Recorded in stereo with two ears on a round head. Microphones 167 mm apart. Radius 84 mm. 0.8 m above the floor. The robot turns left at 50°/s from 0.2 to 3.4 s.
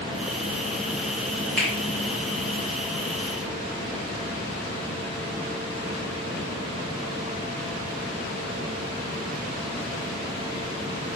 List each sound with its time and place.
1.6 s a finger snap: centre (ahead or behind), 1.2 m; by 1.7 s 5° right (ahead or behind), 1.2 m